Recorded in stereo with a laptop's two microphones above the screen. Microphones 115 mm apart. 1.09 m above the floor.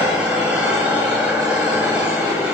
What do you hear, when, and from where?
0.0 s an engine running: 10° right (ahead or behind), 9 m